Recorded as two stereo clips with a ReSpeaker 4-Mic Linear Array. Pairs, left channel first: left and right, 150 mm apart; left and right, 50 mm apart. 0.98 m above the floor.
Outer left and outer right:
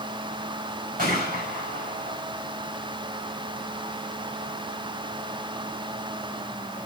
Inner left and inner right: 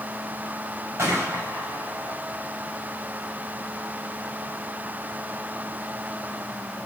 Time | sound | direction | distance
1.0 | a gunshot | 60° right (ahead or behind) | 5.5 m